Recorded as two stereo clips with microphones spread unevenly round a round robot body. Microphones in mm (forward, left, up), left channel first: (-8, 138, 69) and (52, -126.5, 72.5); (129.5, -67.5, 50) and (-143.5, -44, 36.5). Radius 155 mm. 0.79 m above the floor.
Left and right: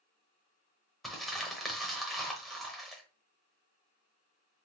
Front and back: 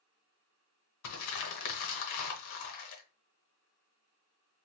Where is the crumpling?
15° left, 0.8 m.